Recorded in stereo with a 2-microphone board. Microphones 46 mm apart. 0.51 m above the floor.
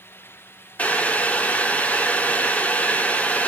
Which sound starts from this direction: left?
Boiling, at 0.8 s.